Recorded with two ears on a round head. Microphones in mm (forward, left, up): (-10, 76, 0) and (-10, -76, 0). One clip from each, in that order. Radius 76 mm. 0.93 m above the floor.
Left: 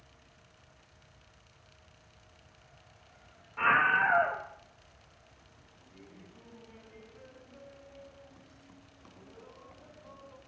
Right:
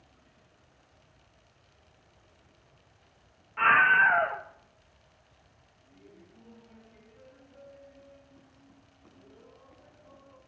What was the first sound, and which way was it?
A scream, 40° right (ahead or behind).